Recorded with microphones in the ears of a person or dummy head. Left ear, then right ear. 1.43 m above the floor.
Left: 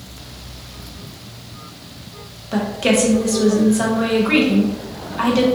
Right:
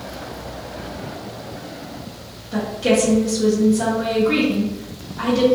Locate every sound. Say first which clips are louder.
2.5 s a woman speaking: left 1 dB; 35° left (ahead or behind), 0.7 m